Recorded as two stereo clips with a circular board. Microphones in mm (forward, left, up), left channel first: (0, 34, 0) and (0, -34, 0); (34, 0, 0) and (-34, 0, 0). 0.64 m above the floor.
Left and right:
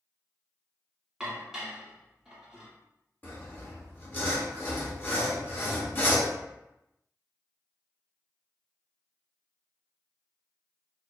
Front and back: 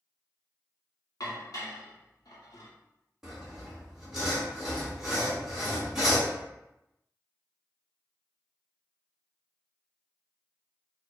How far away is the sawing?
About 1.1 m.